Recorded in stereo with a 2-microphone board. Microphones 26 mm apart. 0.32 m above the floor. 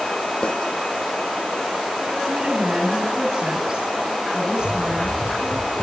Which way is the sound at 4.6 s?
30° left (ahead or behind).